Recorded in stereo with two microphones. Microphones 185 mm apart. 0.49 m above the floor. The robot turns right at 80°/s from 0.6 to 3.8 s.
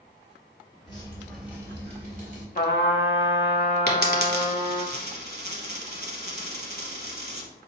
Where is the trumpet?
45° left, 0.6 m; by 4.9 s 145° left, 0.6 m.